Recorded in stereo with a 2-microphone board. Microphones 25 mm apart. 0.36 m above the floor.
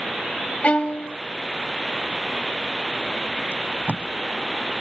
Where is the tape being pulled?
55° right (ahead or behind).